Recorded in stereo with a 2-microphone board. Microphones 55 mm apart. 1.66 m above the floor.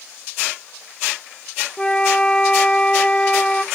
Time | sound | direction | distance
1.8 | a flute | 15° left (ahead or behind) | 0.6 m